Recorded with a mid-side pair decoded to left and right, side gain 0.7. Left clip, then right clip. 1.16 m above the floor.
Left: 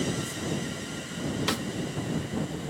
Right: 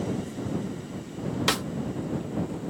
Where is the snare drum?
20° right.